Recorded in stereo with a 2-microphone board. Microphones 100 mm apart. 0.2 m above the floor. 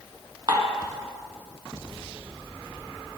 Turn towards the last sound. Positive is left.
turn(degrees=-45)  # may be behind; listen again after turning